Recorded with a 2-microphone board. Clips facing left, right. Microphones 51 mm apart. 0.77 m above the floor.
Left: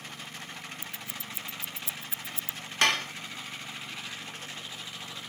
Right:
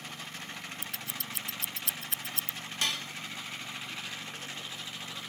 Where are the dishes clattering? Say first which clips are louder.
Left 9 dB; 70° left (ahead or behind).